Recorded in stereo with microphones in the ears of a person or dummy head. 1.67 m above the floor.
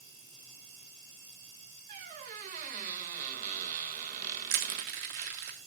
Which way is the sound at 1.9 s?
40° right (ahead or behind).